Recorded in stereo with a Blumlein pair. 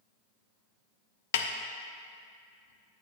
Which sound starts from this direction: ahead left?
A snare drum, at 1.3 s.